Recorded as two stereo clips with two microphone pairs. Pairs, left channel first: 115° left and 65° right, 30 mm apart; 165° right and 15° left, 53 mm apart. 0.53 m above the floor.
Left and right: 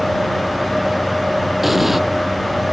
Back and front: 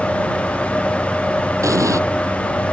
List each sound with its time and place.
1.6 s an explosion: 25° left